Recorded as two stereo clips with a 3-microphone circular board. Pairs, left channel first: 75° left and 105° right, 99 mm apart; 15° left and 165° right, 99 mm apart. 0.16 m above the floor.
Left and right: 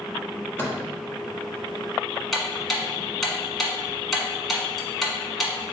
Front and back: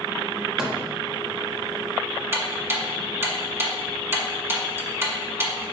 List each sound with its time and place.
0.6 s a microwave: 115° left, 1.0 m
2.3 s ticking: 165° left, 0.9 m